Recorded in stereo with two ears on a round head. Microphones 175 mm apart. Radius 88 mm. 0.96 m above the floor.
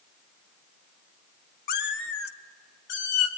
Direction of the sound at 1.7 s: 50° left (ahead or behind).